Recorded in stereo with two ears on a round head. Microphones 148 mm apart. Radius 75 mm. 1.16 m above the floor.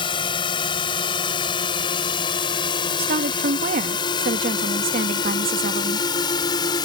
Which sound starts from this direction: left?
A drone, at 0.0 s.